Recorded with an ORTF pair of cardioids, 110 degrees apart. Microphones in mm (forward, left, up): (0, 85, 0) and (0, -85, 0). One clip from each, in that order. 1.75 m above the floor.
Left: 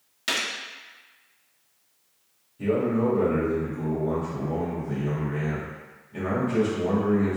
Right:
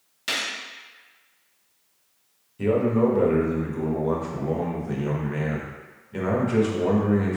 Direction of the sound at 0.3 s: 10° left.